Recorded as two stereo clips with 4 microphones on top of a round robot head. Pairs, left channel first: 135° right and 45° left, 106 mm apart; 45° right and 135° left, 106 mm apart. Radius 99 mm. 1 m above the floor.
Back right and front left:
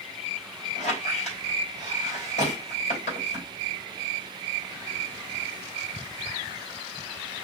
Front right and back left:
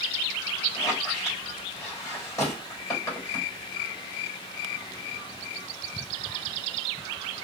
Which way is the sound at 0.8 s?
110° right.